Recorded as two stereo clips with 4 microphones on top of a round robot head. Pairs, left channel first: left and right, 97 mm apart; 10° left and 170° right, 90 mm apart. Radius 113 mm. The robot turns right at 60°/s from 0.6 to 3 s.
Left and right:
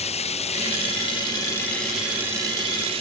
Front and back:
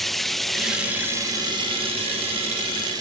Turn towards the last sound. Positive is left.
turn(degrees=-115)